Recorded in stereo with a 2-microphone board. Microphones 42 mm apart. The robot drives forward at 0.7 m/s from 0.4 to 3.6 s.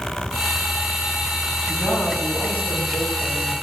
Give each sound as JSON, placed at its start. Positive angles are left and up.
{"t": 1.7, "sound": "a woman speaking", "side_deg": 45, "distance_m": 6.5}